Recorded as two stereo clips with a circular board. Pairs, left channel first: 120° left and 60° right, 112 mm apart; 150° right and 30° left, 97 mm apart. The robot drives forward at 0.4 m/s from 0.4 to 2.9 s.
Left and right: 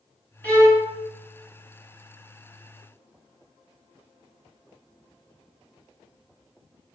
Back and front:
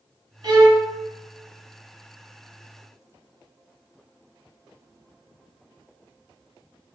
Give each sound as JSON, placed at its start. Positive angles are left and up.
{"t": 0.4, "sound": "a violin", "azimuth_deg": 45, "distance_m": 0.8}